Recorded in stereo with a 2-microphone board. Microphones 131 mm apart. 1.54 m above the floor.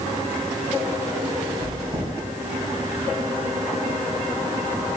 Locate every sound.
1.6 s chewing: 25° right (ahead or behind), 3.5 m